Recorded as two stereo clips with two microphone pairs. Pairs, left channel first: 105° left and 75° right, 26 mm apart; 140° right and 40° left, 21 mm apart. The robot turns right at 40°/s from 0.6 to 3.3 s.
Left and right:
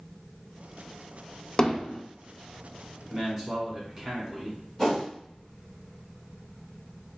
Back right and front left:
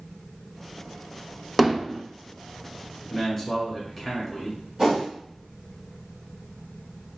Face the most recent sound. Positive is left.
turn(degrees=25)